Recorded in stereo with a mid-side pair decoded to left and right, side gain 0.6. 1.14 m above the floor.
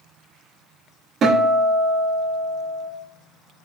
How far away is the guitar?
About 1.4 m.